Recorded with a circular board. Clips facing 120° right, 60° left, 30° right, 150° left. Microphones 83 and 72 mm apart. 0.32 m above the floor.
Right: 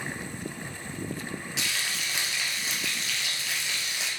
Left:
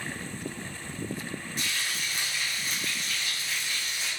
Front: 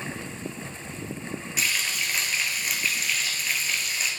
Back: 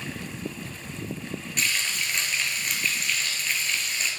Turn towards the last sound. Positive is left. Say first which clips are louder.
# even, even
turn(degrees=-115)